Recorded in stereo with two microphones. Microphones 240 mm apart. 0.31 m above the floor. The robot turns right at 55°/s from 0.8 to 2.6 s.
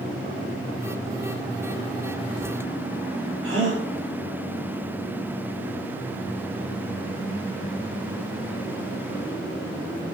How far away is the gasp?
About 2.5 m.